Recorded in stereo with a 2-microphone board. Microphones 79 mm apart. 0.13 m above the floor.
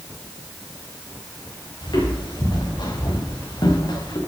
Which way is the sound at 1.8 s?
75° left (ahead or behind).